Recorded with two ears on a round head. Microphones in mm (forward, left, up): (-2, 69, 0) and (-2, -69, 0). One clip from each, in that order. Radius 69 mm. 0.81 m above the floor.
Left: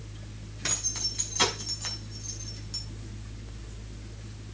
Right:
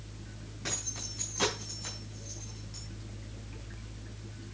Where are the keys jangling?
60° left (ahead or behind), 6 m; by 2.8 s 55° left (ahead or behind), 4.5 m.